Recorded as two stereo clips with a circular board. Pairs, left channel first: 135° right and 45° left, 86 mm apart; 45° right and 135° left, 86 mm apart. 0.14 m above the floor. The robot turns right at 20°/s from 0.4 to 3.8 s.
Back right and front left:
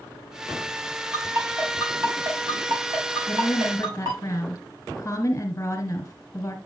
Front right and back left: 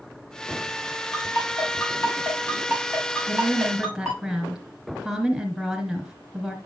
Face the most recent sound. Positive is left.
turn(degrees=-135)